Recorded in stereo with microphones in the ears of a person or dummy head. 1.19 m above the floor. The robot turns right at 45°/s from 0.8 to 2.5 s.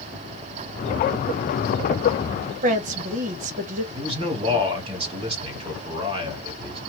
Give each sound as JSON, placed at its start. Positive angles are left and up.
{"t": 2.6, "sound": "a woman speaking", "side_deg": -45, "distance_m": 1.1}
{"t": 3.9, "sound": "a man speaking", "side_deg": -30, "distance_m": 1.7}